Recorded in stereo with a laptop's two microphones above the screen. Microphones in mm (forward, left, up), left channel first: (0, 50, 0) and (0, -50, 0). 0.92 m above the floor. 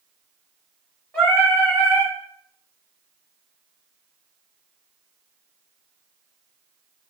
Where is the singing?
15° left (ahead or behind), 1.2 m.